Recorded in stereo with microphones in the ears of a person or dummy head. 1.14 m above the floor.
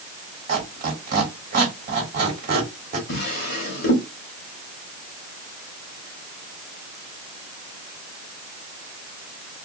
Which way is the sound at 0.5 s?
40° right (ahead or behind).